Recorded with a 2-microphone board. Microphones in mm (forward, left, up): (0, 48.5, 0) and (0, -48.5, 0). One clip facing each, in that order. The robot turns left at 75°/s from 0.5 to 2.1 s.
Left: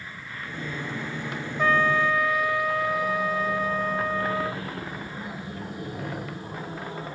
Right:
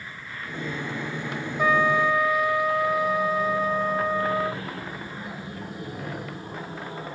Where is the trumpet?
10° right (ahead or behind); by 4.6 s 15° right (ahead or behind).